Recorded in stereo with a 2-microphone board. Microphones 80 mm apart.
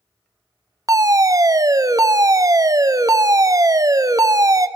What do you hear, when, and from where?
0.9 s a fire alarm: 40° right (ahead or behind), 0.8 m